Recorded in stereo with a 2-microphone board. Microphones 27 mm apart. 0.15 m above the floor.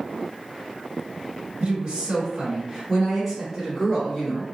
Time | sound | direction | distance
1.6 | a woman speaking | 40° right (ahead or behind) | 1.9 m